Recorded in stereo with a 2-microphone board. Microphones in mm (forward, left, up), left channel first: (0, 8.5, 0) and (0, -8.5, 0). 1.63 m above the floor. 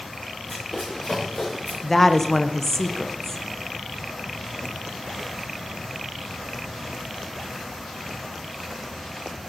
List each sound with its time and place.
0.5 s running footsteps: 25° left (ahead or behind), 6 m; by 1.7 s 20° left (ahead or behind), 6.5 m
1.8 s a woman speaking: 20° left (ahead or behind), 0.9 m